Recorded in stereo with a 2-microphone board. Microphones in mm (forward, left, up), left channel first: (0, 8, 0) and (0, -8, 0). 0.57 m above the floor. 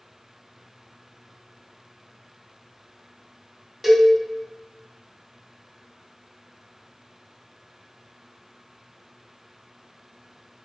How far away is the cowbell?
About 1.1 m.